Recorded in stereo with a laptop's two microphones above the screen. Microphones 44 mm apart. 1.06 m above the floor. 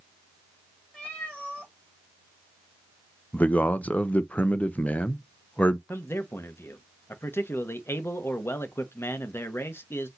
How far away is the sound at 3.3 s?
About 0.7 m.